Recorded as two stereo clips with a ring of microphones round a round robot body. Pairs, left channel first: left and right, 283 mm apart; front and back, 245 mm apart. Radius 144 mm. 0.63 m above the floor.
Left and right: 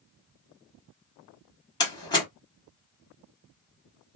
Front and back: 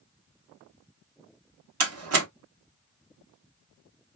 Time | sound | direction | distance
1.8 | a door slam | 165° left | 1.4 m